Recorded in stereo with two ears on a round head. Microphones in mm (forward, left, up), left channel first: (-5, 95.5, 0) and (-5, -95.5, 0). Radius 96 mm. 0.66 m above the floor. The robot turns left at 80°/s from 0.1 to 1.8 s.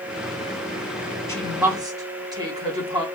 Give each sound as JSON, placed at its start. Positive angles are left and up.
{"t": 1.3, "sound": "a woman speaking", "side_deg": 15, "distance_m": 1.6}